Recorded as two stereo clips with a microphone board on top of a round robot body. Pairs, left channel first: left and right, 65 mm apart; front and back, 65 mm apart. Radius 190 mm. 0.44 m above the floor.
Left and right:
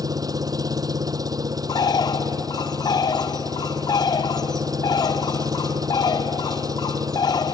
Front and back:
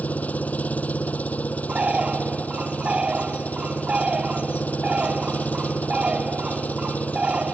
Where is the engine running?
70° right.